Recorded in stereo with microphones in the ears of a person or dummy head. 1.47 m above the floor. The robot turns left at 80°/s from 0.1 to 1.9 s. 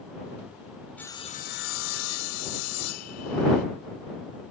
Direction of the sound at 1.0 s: 175° left.